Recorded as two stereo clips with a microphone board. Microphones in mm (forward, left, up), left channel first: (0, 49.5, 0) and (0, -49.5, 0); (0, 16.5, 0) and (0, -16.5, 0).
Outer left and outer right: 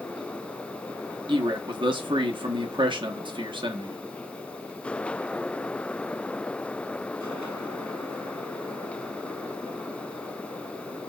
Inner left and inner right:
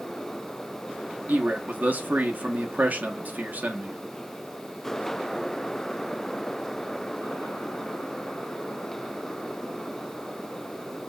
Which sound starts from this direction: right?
A man speaking, at 1.3 s.